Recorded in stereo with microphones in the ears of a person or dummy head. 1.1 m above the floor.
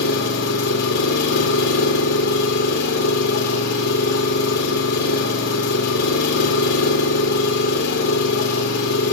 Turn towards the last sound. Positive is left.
turn(degrees=60)  # may be behind; listen again after turning